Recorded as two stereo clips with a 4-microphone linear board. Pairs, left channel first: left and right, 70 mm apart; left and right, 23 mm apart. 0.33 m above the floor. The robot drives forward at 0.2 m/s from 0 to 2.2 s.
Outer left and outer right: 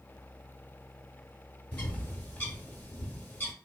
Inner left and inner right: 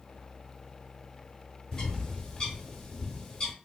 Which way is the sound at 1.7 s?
20° left (ahead or behind).